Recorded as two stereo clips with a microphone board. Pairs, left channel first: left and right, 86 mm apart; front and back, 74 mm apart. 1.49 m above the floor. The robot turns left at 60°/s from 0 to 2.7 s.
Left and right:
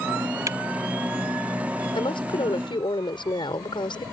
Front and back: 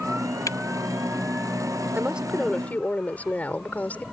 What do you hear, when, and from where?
0.5 s a camera shutter: 40° right; by 0.6 s 50° right
1.9 s a woman speaking: 115° left; by 4.0 s 70° left